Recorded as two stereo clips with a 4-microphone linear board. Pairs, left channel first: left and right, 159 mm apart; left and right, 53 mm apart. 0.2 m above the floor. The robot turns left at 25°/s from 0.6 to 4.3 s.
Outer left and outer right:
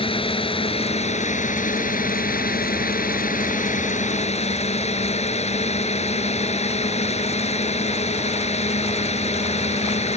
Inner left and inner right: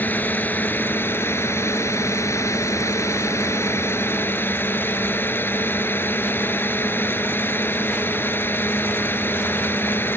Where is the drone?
140° left; by 10.2 s 50° left.